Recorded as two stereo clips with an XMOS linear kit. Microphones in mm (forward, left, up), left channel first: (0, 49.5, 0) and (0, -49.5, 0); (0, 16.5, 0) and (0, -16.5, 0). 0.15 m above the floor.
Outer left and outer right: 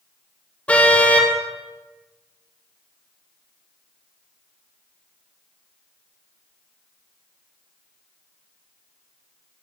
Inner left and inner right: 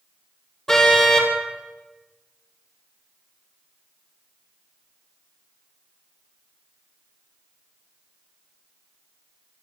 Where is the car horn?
10° left (ahead or behind), 3.5 m.